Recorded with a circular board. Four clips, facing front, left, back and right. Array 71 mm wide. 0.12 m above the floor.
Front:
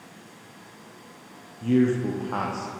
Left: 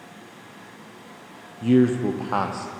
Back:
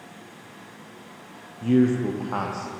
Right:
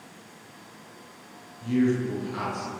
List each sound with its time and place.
1.6 s a man speaking: 100° left, 3.5 m; by 2.7 s 95° left, 4 m